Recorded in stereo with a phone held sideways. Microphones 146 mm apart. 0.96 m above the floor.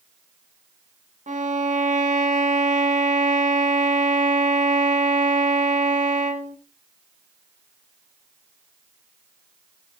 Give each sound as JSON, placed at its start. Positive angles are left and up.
{"t": 1.3, "sound": "a violin", "side_deg": -55, "distance_m": 0.7}